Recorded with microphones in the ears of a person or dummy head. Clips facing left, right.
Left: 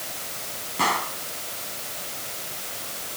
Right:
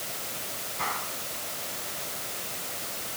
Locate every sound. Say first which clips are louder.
0.8 s a gunshot: left 10 dB; 75° left (ahead or behind)